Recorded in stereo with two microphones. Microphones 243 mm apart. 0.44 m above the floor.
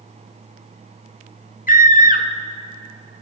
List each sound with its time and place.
1.7 s a scream: 35° left (ahead or behind), 0.9 m